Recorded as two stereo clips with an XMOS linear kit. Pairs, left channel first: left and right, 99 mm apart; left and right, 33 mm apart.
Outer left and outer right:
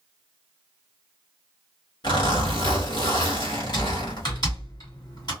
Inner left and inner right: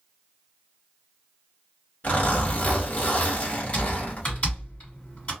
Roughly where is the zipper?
Left.